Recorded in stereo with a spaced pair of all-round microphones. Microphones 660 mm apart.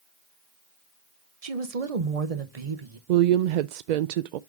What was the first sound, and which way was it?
A woman speaking, 55° right (ahead or behind).